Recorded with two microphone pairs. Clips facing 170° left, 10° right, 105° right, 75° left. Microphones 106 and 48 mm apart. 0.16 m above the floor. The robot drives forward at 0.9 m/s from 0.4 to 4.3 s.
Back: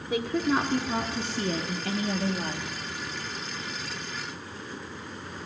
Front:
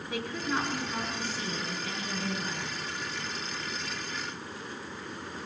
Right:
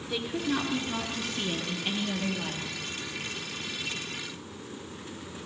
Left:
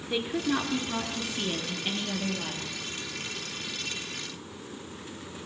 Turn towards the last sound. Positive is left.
turn(degrees=175)